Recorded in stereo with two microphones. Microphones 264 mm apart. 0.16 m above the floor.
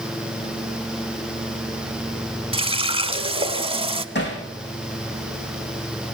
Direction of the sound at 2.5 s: 20° right (ahead or behind).